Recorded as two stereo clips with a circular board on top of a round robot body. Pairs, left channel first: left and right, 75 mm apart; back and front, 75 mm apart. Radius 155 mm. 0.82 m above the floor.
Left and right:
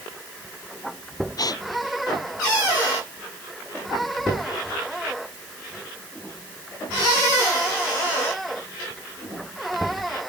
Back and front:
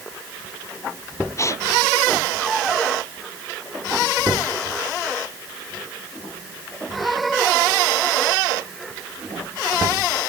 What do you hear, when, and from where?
1.4 s a gasp: 130° left